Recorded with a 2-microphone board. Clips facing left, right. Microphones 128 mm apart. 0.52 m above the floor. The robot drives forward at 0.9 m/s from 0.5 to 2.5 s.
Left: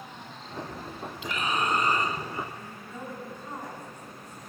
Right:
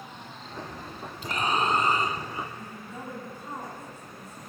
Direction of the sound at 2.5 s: 10° right (ahead or behind).